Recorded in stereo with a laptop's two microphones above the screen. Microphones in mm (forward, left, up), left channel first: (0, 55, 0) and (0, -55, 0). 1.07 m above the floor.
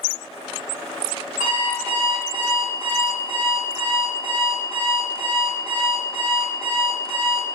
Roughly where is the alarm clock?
Right.